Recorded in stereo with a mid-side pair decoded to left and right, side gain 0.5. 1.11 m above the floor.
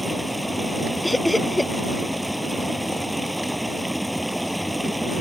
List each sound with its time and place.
0.0 s running water: straight ahead
1.0 s laughter: 10° left